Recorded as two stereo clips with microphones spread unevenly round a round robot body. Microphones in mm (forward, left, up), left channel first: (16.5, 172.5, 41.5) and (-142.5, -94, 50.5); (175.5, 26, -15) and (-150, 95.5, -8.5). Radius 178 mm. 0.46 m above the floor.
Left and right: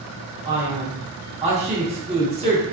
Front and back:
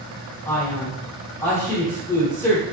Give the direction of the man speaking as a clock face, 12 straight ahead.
3 o'clock.